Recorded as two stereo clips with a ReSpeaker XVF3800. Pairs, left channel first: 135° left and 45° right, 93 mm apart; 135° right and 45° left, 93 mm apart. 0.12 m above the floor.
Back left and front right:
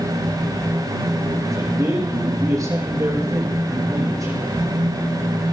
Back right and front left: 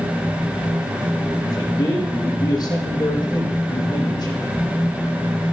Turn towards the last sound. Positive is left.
turn(degrees=-95)